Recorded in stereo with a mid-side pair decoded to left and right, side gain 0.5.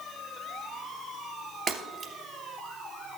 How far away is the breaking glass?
About 2.5 m.